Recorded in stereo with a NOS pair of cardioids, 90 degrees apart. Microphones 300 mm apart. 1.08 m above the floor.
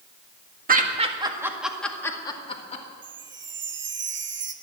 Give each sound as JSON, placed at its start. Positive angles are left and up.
{"t": 0.7, "sound": "laughter", "azimuth_deg": -30, "distance_m": 1.9}
{"t": 3.0, "sound": "a chime", "azimuth_deg": -40, "distance_m": 1.1}